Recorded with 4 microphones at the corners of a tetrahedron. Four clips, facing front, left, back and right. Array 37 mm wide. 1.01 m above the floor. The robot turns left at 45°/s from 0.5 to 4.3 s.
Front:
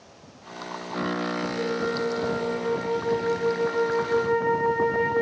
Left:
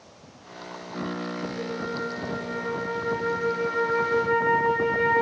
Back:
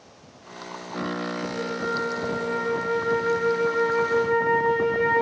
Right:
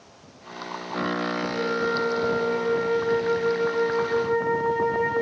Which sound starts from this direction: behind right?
A flute, at 1.5 s.